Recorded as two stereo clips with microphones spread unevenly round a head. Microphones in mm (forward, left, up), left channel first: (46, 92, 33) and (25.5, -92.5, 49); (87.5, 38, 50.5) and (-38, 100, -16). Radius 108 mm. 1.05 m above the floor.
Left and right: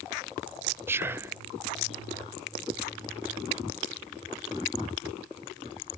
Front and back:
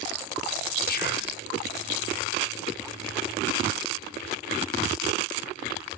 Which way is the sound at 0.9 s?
20° right.